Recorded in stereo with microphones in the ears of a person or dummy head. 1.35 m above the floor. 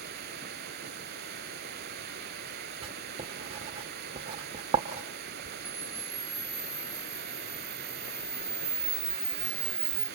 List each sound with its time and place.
0.0 s running water: 50° right (ahead or behind), 1.9 m
2.8 s writing: 30° right (ahead or behind), 1.3 m
5.7 s a camera shutter: centre (ahead or behind), 3 m